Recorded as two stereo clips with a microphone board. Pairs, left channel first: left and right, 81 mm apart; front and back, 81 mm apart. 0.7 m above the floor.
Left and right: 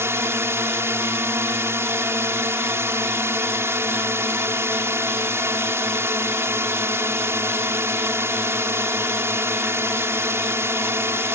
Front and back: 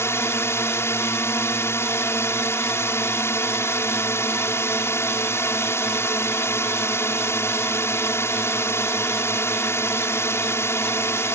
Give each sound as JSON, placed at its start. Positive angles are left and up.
{"t": 0.0, "sound": "a drone", "azimuth_deg": -45}